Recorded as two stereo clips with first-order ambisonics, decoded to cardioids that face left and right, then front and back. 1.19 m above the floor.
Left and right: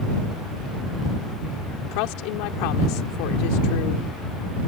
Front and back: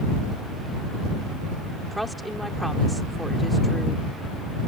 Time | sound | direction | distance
1.9 | a woman speaking | 90° left | ?